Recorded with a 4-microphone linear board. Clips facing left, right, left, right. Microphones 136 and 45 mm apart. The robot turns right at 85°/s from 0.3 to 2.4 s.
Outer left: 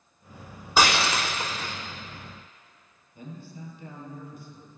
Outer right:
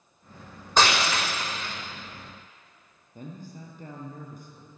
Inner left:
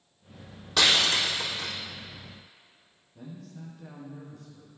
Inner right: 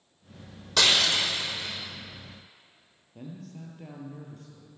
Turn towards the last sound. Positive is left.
turn(degrees=-45)  # may be behind; listen again after turning